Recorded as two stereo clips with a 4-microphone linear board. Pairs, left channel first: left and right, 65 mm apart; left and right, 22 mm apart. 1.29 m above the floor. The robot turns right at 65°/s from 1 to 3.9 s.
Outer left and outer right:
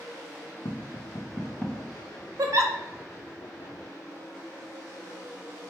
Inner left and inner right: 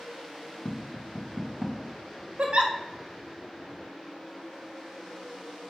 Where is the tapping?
55° left (ahead or behind), 0.6 m; by 1.8 s centre (ahead or behind), 0.6 m.